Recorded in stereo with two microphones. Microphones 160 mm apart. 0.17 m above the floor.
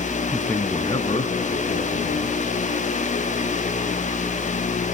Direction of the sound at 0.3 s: 5° right (ahead or behind).